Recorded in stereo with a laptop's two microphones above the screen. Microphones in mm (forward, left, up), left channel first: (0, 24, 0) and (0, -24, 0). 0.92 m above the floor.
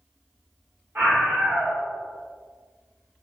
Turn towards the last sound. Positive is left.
turn(degrees=-50)  # may be behind; listen again after turning